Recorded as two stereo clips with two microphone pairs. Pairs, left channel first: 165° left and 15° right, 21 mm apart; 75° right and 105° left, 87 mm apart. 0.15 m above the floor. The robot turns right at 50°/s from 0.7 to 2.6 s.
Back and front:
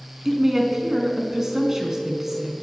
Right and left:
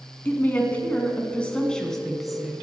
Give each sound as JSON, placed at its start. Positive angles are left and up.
{"t": 0.2, "sound": "a woman speaking", "azimuth_deg": -55, "distance_m": 1.1}